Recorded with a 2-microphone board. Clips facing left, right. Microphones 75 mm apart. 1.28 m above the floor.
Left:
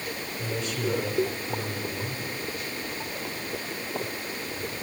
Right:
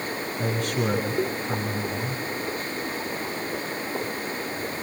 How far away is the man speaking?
About 9.5 m.